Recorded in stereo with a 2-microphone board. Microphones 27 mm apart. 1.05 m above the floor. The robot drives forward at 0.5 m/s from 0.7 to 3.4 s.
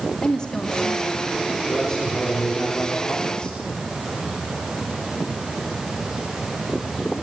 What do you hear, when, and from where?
0.2 s a woman speaking: 35° left (ahead or behind), 2 m; by 1.3 s 30° left (ahead or behind), 2.5 m
1.7 s a man speaking: 30° left (ahead or behind), 3.5 m; by 3.6 s 40° left (ahead or behind), 3 m